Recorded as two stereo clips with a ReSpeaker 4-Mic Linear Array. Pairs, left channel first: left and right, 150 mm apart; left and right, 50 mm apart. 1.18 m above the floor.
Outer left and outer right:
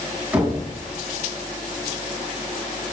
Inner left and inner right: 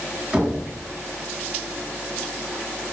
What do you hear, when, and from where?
0.3 s knocking: 5° right (ahead or behind), 6 m